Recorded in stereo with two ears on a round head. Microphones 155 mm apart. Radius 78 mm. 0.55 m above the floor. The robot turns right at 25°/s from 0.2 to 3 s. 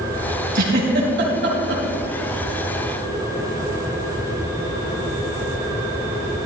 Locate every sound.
0.6 s a giggle: 55° right (ahead or behind), 3 m; by 1.8 s 80° right, 3 m